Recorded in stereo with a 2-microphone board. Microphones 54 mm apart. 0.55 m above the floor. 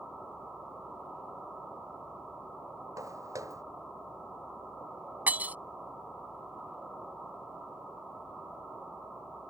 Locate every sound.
3.0 s footsteps: 85° right
5.3 s breaking glass: 30° right (ahead or behind)